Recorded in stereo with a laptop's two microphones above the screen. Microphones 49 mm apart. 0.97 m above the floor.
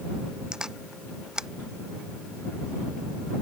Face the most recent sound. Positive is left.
turn(degrees=-15)  # may be behind; listen again after turning